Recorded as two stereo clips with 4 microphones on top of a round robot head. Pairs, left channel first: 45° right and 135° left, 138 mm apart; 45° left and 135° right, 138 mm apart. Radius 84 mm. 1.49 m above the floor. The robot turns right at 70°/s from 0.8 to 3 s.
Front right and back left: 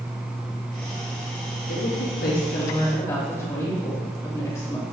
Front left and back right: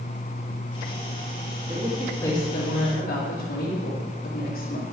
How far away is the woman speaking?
About 3 m.